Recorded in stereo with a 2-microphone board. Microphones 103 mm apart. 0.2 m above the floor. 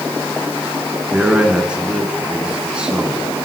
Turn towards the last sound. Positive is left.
turn(degrees=-10)  # may be behind; listen again after turning